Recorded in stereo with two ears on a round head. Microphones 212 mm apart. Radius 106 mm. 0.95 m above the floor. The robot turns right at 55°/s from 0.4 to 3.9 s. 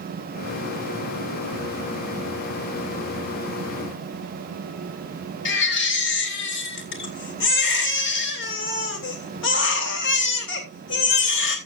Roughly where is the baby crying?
Left.